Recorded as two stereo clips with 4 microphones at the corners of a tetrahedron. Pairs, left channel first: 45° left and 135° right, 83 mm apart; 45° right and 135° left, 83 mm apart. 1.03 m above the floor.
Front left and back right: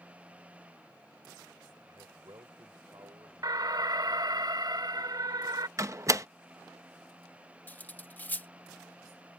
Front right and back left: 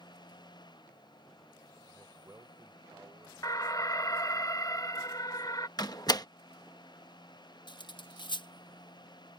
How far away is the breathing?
I don't hear breathing.